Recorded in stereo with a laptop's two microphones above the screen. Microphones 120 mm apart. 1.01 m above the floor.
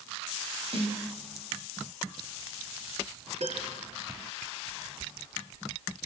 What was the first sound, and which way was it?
A snare drum, 55° right (ahead or behind).